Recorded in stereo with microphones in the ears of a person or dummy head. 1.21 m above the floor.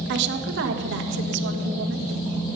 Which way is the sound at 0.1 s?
65° right (ahead or behind).